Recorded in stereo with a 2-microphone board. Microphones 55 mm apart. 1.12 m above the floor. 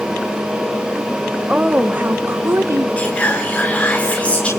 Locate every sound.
1.5 s a woman speaking: 20° right (ahead or behind), 1.1 m; by 2.9 s 55° right (ahead or behind), 1.5 m
3.0 s whispering: 25° left (ahead or behind), 4 m